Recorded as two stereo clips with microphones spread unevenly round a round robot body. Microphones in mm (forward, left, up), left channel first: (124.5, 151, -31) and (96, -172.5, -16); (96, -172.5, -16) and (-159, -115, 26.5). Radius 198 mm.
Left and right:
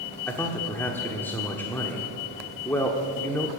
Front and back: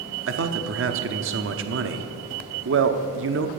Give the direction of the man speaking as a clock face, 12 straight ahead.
7 o'clock.